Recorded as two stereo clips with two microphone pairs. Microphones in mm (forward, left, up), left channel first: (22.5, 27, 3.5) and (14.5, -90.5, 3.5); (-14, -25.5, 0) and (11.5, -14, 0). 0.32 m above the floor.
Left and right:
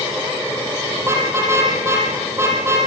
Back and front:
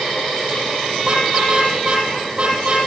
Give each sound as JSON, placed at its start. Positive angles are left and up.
{"t": 1.0, "sound": "a car horn", "azimuth_deg": -25, "distance_m": 6.5}